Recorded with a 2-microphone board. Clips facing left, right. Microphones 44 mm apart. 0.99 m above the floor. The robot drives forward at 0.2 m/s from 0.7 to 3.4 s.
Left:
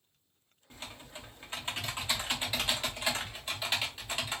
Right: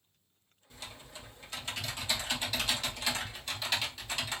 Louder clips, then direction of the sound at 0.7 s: Left 1 dB; 30° left (ahead or behind).